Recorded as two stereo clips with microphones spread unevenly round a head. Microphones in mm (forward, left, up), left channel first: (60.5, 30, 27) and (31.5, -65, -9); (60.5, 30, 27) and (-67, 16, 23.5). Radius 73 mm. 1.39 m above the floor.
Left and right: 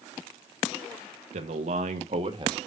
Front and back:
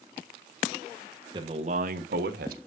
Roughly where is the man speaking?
Right.